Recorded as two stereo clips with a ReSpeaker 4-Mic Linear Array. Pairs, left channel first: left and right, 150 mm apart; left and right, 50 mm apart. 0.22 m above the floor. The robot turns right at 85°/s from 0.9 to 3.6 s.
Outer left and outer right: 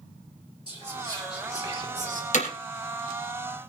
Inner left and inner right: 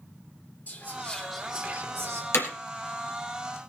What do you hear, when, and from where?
0.7 s whispering: 150° left, 4 m; by 2.2 s 95° right, 4 m
2.3 s hammering: 55° left (ahead or behind), 3 m; by 2.5 s 45° left (ahead or behind), 3 m